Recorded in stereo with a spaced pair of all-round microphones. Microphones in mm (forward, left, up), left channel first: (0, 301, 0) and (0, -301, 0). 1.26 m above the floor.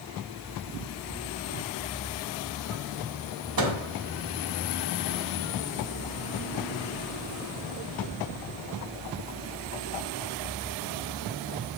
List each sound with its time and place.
3.6 s a microwave: 35° right (ahead or behind), 0.7 m